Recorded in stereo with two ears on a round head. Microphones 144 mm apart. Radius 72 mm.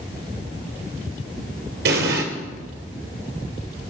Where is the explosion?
75° right (ahead or behind), 3 m.